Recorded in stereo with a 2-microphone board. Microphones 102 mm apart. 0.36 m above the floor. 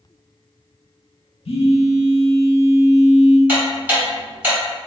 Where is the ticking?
20° right (ahead or behind), 1.6 m.